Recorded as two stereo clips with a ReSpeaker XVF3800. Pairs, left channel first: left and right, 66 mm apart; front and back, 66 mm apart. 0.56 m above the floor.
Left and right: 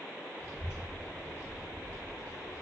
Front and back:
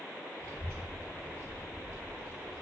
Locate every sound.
0.4 s a child speaking: 135° left, 1.5 m